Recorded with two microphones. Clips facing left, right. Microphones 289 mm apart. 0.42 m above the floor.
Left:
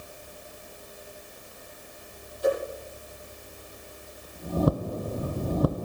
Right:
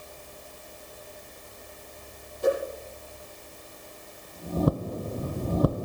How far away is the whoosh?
About 10 m.